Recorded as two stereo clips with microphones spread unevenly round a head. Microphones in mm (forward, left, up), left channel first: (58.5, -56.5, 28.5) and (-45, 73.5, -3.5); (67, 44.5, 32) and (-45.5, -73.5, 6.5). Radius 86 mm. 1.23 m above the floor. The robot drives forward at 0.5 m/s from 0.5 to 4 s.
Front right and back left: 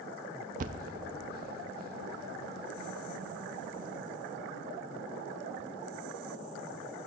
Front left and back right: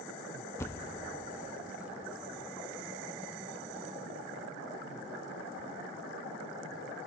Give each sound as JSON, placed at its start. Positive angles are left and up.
{"t": 0.6, "sound": "a thud", "azimuth_deg": 100, "distance_m": 0.6}